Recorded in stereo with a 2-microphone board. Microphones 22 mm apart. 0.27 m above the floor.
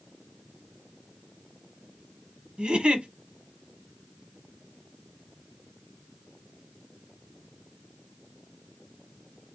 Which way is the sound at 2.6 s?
50° right (ahead or behind).